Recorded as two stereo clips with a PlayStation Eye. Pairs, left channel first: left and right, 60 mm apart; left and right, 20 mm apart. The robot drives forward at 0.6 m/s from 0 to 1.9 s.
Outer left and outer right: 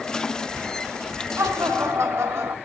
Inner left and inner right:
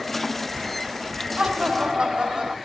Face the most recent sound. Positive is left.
turn(degrees=-60)  # may be behind; listen again after turning